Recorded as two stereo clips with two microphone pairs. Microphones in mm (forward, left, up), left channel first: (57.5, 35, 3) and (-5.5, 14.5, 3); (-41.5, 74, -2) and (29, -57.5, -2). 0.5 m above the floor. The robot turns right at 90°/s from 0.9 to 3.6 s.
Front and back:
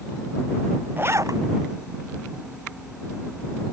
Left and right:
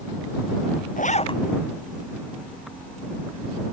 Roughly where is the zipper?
Behind left.